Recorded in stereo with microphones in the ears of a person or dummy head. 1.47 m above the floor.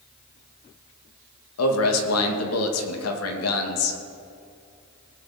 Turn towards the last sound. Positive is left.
turn(degrees=90)